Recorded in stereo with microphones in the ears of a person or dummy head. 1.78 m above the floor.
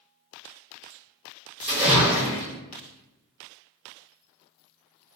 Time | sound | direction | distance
1.6 | a splash | 10° right (ahead or behind) | 1.5 m